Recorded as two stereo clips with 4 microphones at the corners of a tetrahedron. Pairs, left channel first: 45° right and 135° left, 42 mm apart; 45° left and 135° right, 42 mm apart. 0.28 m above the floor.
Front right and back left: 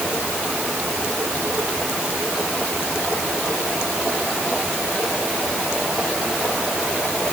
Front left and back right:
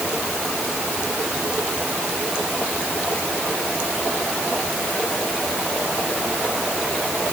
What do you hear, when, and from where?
Only background noise.